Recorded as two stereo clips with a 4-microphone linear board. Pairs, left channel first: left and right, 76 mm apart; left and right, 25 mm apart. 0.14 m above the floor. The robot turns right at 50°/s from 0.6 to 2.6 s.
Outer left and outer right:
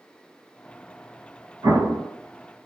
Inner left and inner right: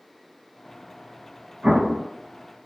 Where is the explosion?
55° right (ahead or behind), 0.7 m; by 2.1 s 40° right (ahead or behind), 0.7 m.